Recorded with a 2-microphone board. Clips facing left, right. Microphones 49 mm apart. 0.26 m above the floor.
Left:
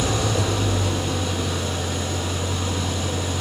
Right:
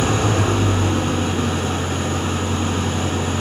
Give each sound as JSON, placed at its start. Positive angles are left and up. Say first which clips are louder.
{"t": 0.0, "sound": "an engine running", "louder": "right 4 dB", "side_deg": -40, "distance_m": 0.9}